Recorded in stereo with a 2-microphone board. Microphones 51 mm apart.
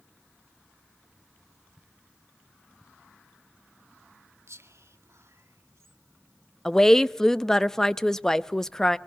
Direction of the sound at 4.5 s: 70° right (ahead or behind).